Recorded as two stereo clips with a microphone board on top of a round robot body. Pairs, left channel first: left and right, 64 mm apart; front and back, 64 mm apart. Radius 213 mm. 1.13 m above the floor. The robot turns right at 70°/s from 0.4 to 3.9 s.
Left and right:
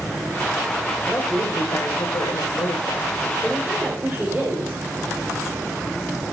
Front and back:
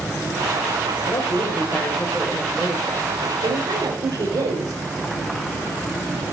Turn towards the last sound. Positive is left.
turn(degrees=-160)